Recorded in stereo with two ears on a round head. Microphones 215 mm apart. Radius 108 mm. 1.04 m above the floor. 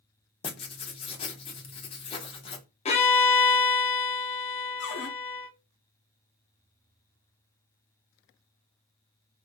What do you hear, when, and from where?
0.4 s writing: 25° left (ahead or behind), 0.6 m
2.9 s a violin: 25° left (ahead or behind), 0.6 m
4.8 s a cupboard door: 50° left (ahead or behind), 0.9 m